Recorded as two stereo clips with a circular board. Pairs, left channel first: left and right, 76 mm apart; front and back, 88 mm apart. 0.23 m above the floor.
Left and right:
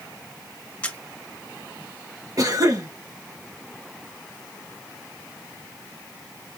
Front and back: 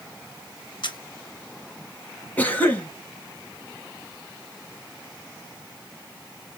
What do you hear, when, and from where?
0.8 s a camera shutter: 20° left, 1.7 m
2.4 s a cough: 70° right, 2.5 m